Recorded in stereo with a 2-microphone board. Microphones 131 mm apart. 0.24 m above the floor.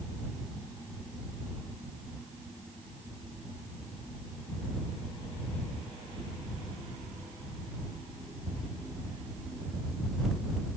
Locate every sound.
Only background noise.